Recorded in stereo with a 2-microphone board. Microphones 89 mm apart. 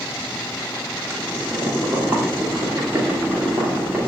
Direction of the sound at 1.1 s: 30° right (ahead or behind).